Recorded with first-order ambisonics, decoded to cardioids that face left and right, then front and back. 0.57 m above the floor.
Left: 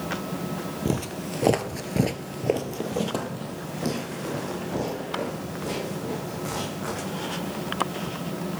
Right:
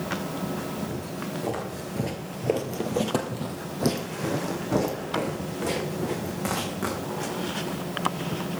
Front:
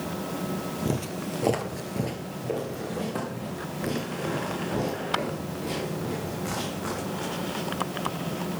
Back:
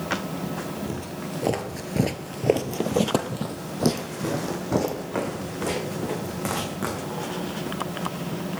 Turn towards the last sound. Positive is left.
turn(degrees=-150)